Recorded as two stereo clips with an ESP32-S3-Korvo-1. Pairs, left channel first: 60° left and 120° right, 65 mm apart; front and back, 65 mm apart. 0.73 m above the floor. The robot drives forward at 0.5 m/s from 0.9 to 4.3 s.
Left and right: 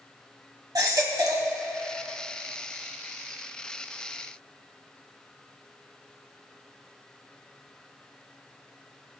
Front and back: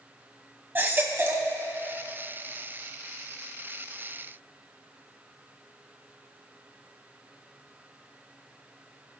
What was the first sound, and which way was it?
A baby crying, 125° right.